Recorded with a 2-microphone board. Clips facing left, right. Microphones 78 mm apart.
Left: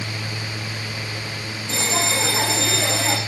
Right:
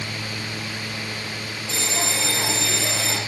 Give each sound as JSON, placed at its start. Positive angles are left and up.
{"t": 1.7, "sound": "a bell", "side_deg": 50, "distance_m": 5.5}